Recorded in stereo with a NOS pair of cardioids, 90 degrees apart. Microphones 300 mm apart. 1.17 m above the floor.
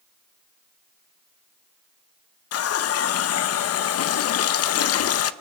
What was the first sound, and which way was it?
A running tap, 55° left.